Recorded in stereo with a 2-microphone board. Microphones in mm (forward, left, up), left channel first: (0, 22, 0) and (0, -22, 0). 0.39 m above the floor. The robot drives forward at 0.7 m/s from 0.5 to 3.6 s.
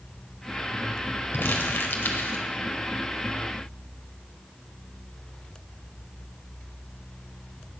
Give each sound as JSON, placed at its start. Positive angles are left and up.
{"t": 1.3, "sound": "crumpling", "side_deg": 55, "distance_m": 1.3}